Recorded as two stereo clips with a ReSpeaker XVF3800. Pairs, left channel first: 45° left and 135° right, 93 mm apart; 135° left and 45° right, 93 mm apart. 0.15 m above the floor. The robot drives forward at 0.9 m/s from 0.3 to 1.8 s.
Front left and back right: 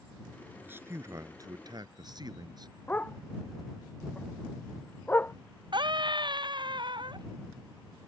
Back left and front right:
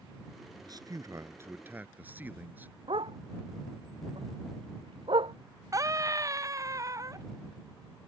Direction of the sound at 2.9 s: 25° right.